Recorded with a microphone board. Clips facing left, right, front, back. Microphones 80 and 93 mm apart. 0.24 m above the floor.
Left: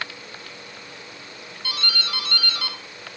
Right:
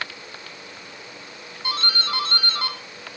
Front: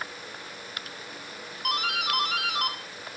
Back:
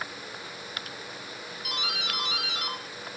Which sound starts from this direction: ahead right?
A doorbell, at 1.6 s.